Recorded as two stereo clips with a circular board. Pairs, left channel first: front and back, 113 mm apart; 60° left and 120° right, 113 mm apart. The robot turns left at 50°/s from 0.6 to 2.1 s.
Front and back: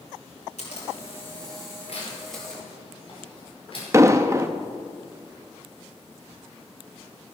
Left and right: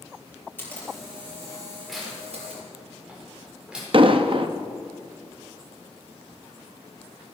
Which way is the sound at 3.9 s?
125° right.